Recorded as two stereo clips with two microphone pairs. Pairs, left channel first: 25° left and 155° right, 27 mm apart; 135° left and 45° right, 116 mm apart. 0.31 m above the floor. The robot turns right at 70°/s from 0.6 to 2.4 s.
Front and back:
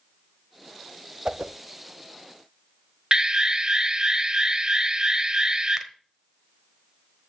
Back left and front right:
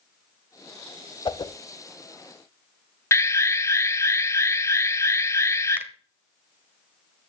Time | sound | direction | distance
1.2 | a whoosh | 155° left | 0.5 m
3.1 | an alarm | 170° left | 0.7 m
5.8 | a finger snap | 95° right | 1.1 m